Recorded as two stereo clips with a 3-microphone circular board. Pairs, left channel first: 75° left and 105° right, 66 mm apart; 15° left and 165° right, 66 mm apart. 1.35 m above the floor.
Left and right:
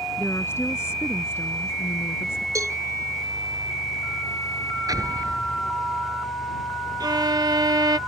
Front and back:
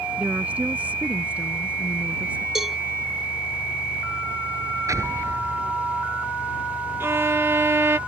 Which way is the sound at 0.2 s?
125° left.